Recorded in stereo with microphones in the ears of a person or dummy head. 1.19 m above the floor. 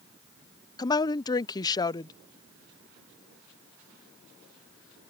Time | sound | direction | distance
0.8 | a woman speaking | 20° left (ahead or behind) | ?